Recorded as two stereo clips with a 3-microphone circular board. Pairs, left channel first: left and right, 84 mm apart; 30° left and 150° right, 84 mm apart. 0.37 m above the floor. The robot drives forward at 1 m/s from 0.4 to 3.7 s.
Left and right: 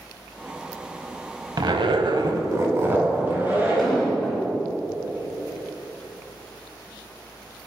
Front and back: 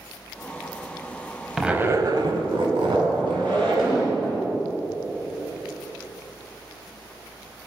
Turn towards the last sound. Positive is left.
turn(degrees=180)